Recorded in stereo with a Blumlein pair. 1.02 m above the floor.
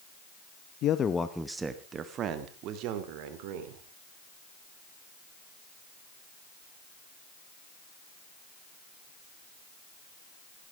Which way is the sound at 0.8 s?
35° left.